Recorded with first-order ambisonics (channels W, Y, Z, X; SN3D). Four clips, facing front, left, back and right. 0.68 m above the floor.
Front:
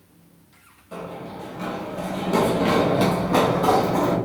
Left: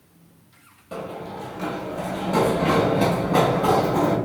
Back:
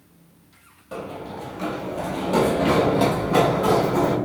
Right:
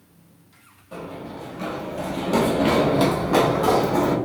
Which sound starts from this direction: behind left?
Running footsteps, at 0.9 s.